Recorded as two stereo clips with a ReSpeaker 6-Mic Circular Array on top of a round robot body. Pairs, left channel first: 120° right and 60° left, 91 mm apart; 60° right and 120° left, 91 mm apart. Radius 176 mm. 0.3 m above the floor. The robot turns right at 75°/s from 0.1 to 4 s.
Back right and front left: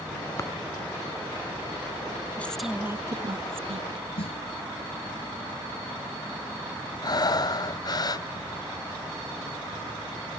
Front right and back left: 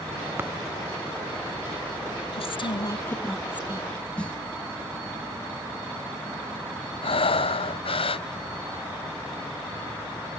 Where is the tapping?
175° right; by 0.5 s 170° right.